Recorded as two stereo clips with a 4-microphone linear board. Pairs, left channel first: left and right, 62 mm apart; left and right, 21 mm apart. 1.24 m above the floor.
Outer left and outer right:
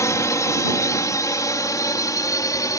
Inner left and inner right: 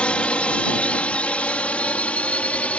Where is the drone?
60° left (ahead or behind); by 2.8 s 70° left (ahead or behind).